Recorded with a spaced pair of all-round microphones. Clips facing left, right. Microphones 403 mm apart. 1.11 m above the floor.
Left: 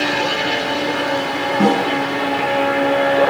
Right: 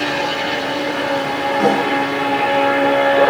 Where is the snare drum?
50° left (ahead or behind), 6 m.